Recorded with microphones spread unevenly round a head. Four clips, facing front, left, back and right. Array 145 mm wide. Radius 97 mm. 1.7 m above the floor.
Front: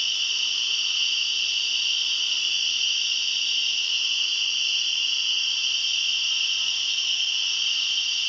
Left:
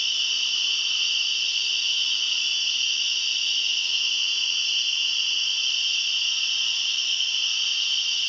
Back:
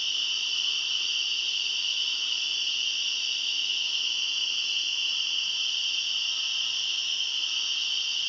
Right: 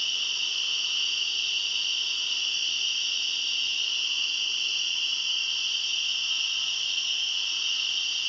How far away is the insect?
About 1.1 m.